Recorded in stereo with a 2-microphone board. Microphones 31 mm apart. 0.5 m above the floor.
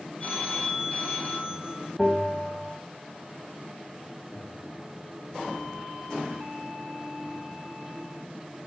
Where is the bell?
25° left (ahead or behind), 2.5 m.